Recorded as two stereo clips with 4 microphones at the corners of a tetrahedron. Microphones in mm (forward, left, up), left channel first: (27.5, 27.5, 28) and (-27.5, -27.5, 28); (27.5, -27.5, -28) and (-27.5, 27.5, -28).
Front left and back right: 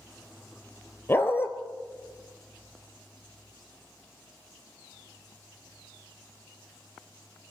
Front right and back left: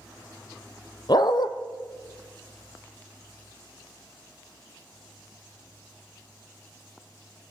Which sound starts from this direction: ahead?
A dog barking, at 1.1 s.